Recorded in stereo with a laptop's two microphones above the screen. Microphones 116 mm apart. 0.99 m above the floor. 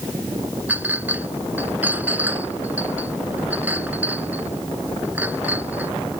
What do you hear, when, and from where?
0.7 s a clink: 15° right (ahead or behind)